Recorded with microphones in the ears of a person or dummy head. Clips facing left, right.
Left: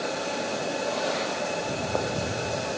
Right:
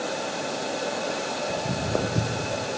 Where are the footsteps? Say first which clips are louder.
Right 1 dB; 20° right (ahead or behind), 3.5 m; by 2.6 s 35° right (ahead or behind), 4 m.